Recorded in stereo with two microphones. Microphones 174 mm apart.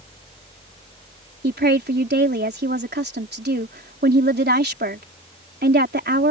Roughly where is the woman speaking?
Right.